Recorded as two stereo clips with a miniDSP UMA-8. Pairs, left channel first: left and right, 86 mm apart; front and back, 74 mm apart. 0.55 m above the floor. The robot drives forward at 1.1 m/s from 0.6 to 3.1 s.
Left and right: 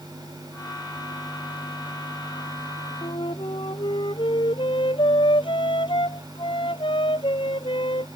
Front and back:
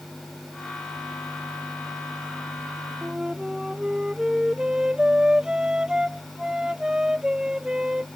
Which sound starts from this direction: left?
A flute, at 3.0 s.